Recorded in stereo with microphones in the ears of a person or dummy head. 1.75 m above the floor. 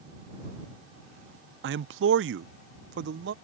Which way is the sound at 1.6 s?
70° right (ahead or behind).